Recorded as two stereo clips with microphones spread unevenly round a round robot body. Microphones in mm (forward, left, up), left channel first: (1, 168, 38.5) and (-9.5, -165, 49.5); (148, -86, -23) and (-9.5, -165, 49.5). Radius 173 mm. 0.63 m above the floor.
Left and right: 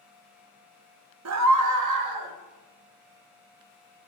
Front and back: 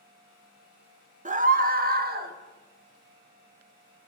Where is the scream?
95° right, 0.9 m; by 2.4 s 110° right, 1.4 m.